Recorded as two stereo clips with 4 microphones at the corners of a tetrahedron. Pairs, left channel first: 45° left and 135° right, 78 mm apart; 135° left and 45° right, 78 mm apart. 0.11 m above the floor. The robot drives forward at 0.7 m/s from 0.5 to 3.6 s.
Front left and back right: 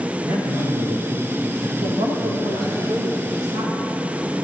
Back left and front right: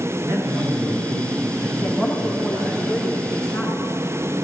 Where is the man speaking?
80° right, 8 m; by 2.8 s 90° right, 7.5 m.